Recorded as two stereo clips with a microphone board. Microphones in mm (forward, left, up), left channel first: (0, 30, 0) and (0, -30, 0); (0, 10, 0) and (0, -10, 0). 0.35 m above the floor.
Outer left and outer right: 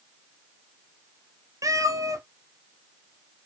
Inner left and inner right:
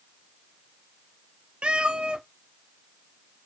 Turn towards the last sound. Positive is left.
turn(degrees=-65)  # may be behind; listen again after turning